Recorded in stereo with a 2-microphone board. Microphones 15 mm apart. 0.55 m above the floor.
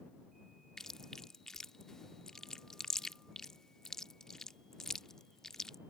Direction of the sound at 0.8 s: 35° left (ahead or behind).